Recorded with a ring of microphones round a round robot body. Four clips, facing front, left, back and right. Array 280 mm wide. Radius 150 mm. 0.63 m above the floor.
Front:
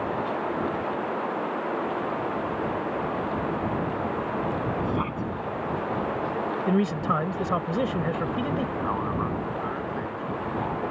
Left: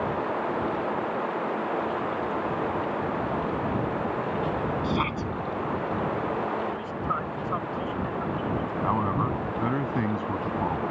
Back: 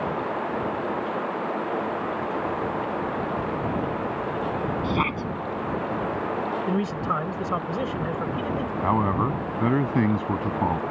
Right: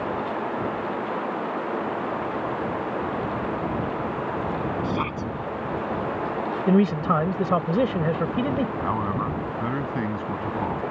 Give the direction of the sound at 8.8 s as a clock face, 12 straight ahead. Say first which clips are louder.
Even, back 5 dB; 6 o'clock.